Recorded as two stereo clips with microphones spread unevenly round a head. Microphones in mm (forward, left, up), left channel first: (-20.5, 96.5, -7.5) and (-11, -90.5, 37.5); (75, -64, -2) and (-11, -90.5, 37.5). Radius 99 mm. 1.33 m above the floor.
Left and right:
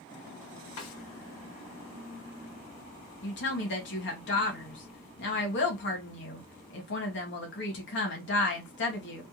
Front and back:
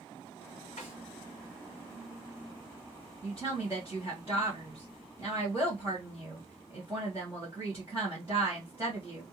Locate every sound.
0.8 s a snare drum: 80° left, 2 m
3.2 s a woman speaking: 120° left, 1.5 m